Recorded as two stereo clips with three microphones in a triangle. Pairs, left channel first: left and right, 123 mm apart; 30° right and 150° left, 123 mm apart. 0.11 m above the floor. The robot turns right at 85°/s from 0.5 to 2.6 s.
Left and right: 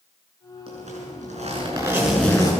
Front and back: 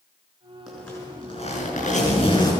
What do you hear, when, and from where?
0.7 s a zipper: 120° right, 6.5 m; by 2.5 s 35° left, 6.5 m